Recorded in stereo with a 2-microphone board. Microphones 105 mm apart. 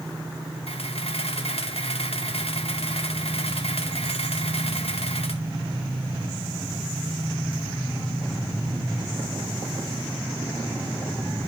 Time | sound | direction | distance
0.7 | a camera shutter | 80° left | 1.9 m